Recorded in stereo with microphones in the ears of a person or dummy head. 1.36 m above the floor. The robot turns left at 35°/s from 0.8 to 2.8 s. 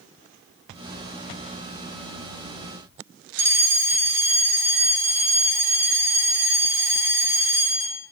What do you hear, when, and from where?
3.4 s a fire alarm: 10° right (ahead or behind), 3.5 m